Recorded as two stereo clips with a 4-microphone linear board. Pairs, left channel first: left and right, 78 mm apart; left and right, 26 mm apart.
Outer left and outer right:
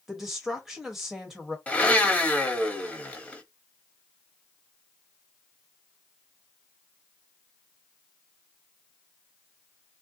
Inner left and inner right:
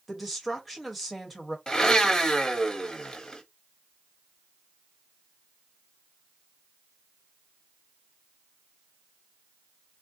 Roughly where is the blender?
Centre.